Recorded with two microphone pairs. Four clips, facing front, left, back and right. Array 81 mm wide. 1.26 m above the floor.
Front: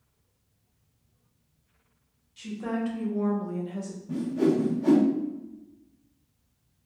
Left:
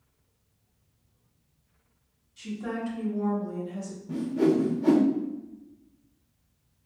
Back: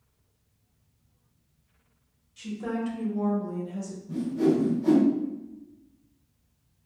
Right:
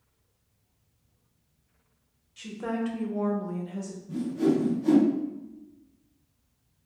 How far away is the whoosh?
About 0.6 m.